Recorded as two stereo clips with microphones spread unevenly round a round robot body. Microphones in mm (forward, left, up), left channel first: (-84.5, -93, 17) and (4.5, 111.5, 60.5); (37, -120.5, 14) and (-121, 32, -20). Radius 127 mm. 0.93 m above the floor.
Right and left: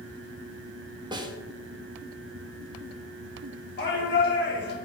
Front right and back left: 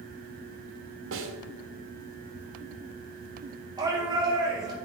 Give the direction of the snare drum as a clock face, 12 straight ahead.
7 o'clock.